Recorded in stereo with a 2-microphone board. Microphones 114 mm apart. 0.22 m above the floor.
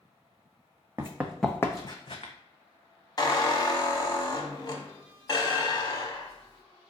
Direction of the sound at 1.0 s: 25° right (ahead or behind).